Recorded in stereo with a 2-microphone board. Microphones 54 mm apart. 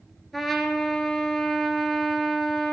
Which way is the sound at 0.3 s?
Centre (ahead or behind).